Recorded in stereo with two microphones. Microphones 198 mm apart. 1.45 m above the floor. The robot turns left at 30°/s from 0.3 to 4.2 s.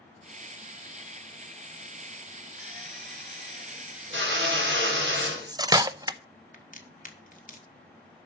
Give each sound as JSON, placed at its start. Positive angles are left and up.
{"t": 2.6, "sound": "a drill", "azimuth_deg": -45, "distance_m": 2.5}
{"t": 5.2, "sound": "cutlery clinking", "side_deg": -20, "distance_m": 0.6}
{"t": 6.5, "sound": "a crack", "side_deg": 45, "distance_m": 1.5}